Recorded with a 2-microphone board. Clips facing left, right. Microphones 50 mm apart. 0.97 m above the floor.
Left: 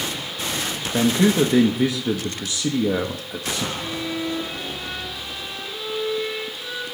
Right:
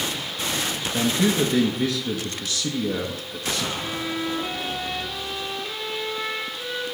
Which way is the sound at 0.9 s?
30° left (ahead or behind).